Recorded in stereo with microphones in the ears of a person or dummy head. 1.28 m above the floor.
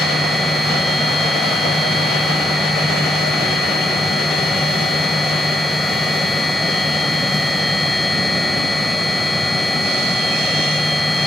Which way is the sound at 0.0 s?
5° right (ahead or behind).